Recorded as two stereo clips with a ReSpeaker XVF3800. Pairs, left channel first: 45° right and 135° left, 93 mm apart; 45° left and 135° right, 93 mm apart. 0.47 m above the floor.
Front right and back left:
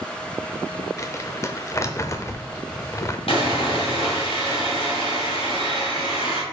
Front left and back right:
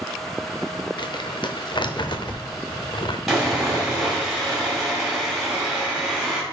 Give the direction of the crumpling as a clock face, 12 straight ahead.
12 o'clock.